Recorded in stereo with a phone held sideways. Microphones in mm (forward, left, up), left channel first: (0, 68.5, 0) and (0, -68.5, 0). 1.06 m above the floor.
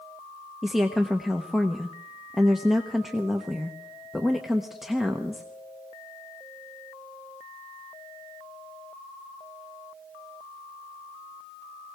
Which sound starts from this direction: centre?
A woman speaking, at 0.6 s.